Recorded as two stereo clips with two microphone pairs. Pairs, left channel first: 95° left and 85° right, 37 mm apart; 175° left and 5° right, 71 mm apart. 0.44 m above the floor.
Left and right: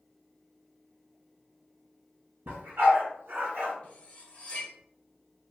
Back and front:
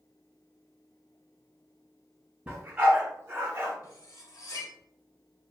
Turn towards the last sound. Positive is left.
turn(degrees=150)